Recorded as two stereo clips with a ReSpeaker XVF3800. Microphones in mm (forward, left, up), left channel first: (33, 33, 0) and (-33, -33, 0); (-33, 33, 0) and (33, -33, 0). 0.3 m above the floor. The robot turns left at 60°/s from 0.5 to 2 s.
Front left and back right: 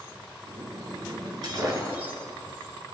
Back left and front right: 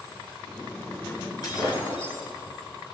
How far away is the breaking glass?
About 2.5 m.